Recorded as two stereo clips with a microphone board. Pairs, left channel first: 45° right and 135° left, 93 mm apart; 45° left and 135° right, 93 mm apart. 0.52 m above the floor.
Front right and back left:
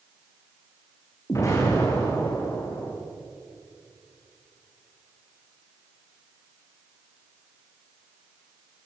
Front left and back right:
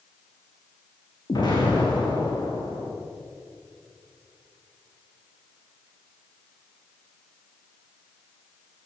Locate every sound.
1.3 s an explosion: 10° left, 8.5 m